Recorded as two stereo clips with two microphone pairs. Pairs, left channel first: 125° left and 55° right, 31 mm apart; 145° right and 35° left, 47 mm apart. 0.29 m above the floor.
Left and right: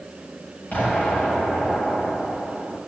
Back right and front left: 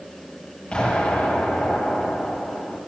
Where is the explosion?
145° left, 8 m.